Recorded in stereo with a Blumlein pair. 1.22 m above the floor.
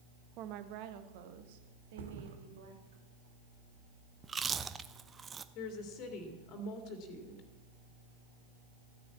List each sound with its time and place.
0.4 s a woman speaking: 35° right, 1.0 m; by 3.0 s 60° right, 3 m
2.0 s a thud: 60° right, 1.8 m
4.2 s chewing: 15° right, 0.7 m
5.5 s a woman speaking: 35° left, 2.5 m